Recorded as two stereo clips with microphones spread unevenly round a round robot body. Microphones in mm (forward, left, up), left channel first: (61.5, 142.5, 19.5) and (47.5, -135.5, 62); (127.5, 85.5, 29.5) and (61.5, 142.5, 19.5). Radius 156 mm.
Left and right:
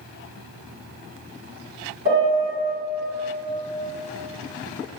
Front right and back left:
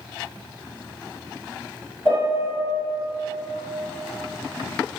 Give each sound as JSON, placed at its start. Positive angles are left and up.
{"t": 2.0, "sound": "a piano", "azimuth_deg": -160, "distance_m": 1.4}